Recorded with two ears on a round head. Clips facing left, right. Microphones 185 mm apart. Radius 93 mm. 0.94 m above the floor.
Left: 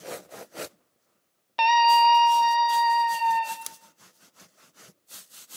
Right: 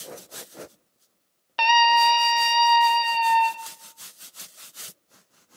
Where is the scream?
5° right (ahead or behind), 0.7 m; by 3.5 s 45° right (ahead or behind), 1.0 m.